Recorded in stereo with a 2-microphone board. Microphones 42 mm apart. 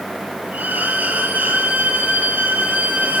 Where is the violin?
40° right (ahead or behind), 8 m.